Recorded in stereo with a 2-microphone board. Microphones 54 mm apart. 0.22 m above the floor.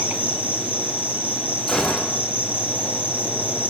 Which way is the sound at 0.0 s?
30° right (ahead or behind).